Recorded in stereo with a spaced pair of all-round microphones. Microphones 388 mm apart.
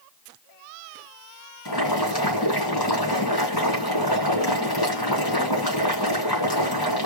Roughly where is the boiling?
Left.